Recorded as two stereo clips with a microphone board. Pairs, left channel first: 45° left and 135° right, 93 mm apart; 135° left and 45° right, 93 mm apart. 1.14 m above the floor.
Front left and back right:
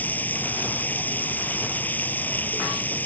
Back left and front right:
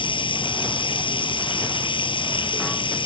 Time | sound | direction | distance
0.0 | running water | 115° left | ?